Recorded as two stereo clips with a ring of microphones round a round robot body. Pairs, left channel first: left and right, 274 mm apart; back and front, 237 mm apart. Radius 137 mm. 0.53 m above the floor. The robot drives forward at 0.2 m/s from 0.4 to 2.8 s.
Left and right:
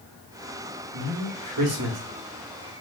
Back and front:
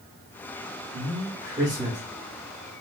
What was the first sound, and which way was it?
A man speaking, 70° right.